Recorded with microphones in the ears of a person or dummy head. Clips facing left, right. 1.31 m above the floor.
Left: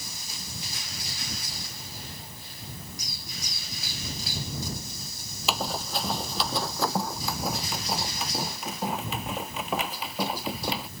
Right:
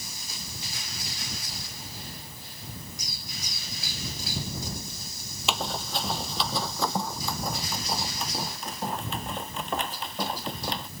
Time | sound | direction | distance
5.5 | running footsteps | 5° left (ahead or behind) | ?